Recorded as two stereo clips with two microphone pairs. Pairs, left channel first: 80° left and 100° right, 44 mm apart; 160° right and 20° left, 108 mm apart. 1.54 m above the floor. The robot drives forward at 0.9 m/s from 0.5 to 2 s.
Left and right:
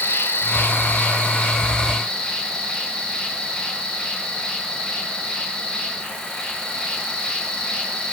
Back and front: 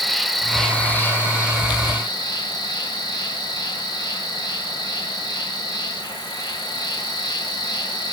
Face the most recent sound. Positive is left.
turn(degrees=150)